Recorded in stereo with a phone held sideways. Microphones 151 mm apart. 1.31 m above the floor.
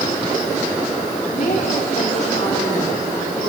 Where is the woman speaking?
55° left (ahead or behind), 4.5 m.